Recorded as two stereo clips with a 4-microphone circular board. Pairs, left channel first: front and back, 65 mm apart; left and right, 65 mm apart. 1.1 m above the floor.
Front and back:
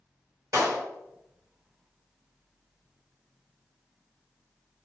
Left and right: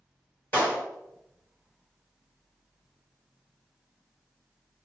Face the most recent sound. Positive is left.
turn(degrees=150)